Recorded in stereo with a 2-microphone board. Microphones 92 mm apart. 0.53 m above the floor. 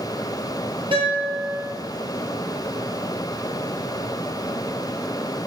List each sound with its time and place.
0.9 s a guitar: 80° right, 1.9 m